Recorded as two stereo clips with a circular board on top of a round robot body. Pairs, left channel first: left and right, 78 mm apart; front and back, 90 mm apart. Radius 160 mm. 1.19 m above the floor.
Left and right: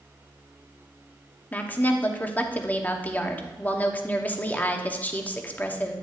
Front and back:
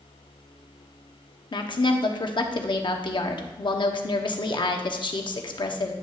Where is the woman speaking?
25° left, 1.0 m.